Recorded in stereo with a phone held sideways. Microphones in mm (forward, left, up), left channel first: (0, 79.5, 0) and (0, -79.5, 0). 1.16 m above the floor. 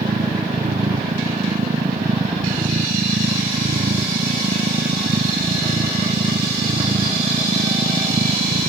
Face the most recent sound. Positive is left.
turn(degrees=-75)  # may be behind; listen again after turning